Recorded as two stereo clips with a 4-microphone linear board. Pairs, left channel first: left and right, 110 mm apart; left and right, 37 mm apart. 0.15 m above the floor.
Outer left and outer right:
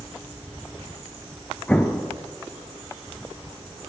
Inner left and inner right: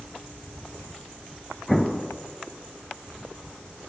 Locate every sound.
1.7 s an explosion: 15° left (ahead or behind), 0.8 m